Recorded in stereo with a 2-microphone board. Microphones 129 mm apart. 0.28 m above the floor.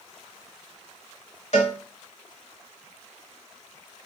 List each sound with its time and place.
1.5 s a cowbell: 60° left (ahead or behind), 1.0 m